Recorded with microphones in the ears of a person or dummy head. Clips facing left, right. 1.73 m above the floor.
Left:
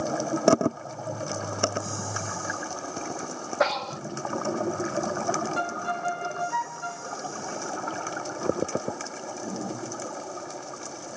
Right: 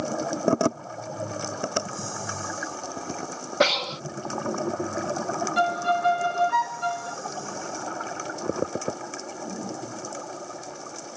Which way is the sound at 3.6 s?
45° right (ahead or behind).